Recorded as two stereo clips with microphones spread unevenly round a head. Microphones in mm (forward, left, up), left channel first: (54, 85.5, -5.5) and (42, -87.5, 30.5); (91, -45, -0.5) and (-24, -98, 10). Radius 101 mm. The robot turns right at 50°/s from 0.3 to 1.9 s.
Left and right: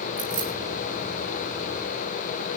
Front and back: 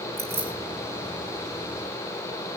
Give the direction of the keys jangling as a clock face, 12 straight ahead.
4 o'clock.